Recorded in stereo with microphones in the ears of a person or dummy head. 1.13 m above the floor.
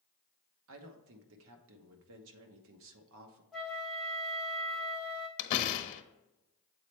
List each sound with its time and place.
0.7 s a woman speaking: 65° right (ahead or behind), 1.0 m
3.5 s a flute: 5° left (ahead or behind), 0.7 m
5.4 s a door slam: 40° left (ahead or behind), 0.9 m